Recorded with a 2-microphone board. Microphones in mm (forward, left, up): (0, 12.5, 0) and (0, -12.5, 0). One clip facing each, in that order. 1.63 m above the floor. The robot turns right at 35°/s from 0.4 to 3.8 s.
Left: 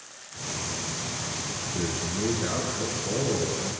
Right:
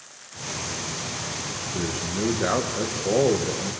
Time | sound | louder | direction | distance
1.7 | a man speaking | right 2 dB | 155° right | 2 m